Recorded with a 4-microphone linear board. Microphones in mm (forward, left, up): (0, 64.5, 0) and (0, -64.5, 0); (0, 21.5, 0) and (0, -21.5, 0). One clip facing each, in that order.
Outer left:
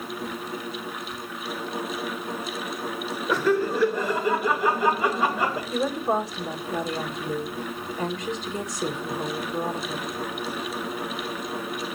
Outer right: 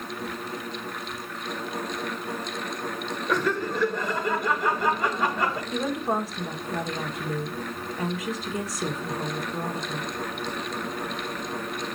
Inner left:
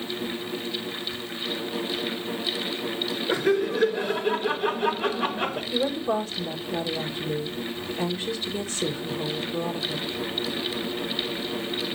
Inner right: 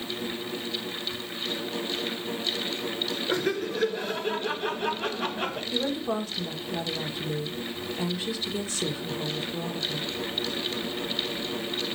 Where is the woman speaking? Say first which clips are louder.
Outer left 2 dB, inner left 4 dB; centre (ahead or behind), 1.2 m.